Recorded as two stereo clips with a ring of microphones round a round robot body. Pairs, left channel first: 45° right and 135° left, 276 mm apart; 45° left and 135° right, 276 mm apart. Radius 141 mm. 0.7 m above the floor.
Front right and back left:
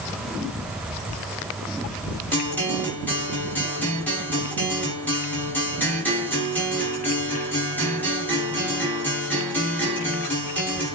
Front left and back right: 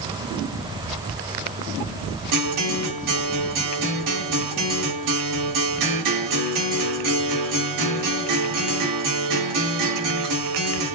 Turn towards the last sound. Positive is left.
turn(degrees=-130)